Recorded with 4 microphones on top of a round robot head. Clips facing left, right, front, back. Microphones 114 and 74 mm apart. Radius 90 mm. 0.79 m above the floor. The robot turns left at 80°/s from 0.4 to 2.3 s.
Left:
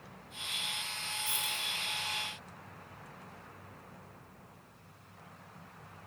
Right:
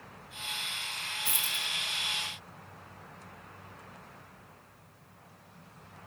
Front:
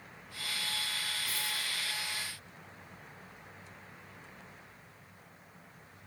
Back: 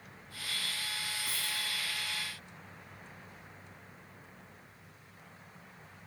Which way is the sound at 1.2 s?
105° right.